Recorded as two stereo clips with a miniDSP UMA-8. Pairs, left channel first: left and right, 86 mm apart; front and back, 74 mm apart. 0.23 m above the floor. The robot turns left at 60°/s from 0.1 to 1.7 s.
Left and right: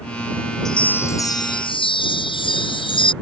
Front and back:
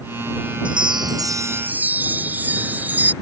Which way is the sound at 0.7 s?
175° left.